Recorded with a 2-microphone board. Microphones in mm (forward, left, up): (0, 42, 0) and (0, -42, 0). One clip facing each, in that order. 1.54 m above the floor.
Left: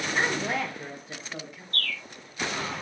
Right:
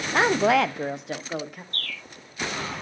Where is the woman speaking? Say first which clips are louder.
Right 10 dB; 70° right (ahead or behind), 0.6 m; by 1.6 s 50° right (ahead or behind), 1.4 m.